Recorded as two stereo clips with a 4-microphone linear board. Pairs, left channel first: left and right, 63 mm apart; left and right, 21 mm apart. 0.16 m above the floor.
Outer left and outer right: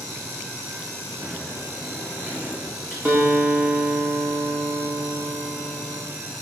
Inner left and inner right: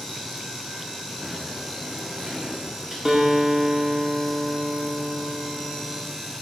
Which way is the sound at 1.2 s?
35° right (ahead or behind).